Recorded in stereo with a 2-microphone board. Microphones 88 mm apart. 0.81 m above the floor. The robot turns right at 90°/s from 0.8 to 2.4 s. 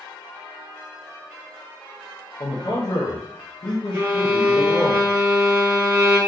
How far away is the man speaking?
About 0.6 m.